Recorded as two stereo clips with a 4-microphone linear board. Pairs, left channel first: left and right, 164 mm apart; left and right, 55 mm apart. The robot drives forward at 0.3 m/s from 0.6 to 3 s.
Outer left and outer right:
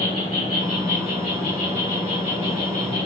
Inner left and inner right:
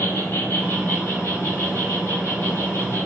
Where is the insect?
60° left (ahead or behind), 1.9 m; by 3.1 s 50° left (ahead or behind), 2 m.